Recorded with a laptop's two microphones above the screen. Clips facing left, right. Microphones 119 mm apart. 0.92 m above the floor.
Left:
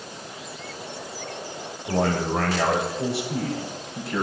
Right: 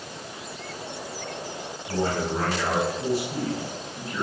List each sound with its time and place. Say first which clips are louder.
1.9 s a man speaking: left 3 dB; 80° left, 3.5 m